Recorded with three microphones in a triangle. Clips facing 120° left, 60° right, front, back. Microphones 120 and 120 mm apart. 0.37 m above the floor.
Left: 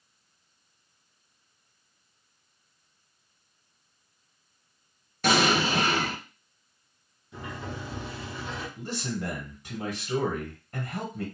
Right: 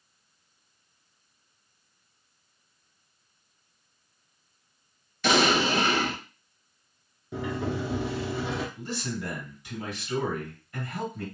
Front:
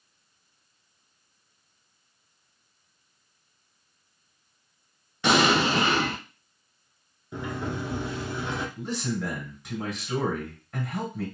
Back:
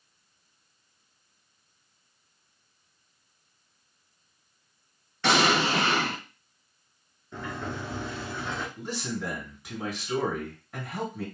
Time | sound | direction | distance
5.2 | an explosion | 80° left | 1.6 m
7.3 | a sliding door | 75° right | 0.8 m
8.8 | a man speaking | 95° left | 2.0 m